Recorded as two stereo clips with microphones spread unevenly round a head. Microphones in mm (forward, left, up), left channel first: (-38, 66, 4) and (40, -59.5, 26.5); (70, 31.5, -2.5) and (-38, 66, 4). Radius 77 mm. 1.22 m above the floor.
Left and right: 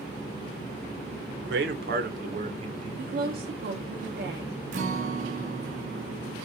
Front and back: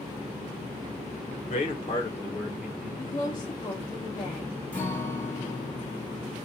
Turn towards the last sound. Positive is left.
turn(degrees=-100)